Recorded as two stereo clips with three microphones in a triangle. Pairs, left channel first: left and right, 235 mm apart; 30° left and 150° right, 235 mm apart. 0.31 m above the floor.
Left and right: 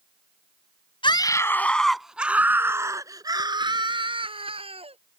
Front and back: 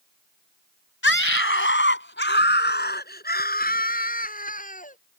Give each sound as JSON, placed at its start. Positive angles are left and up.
{"t": 1.0, "sound": "a scream", "azimuth_deg": 25}